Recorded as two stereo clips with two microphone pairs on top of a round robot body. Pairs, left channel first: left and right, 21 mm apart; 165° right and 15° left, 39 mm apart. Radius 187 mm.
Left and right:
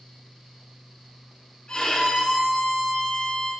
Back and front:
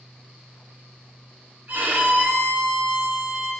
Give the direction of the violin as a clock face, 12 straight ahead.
10 o'clock.